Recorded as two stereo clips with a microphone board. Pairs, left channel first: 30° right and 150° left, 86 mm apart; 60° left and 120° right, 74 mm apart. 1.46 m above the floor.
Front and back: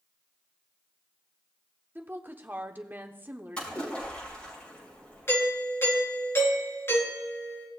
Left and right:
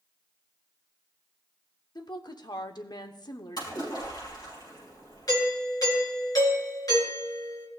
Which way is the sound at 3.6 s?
45° left.